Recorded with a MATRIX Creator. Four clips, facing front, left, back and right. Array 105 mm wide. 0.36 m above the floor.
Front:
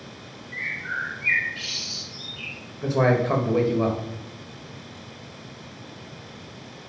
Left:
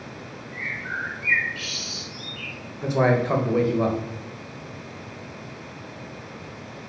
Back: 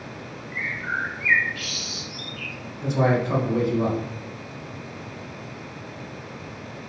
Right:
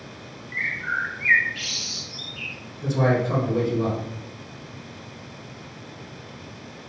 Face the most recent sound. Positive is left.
turn(degrees=50)